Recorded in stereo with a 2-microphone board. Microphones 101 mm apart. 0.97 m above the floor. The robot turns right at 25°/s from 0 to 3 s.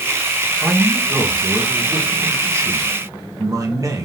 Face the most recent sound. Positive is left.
turn(degrees=-130)